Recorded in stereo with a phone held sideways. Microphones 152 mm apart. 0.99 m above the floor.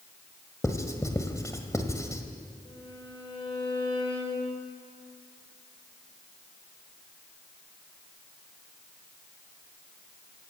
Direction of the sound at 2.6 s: 35° left (ahead or behind).